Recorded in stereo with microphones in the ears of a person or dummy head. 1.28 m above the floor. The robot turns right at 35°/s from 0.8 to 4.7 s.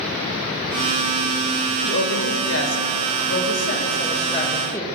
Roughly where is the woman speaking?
Ahead left.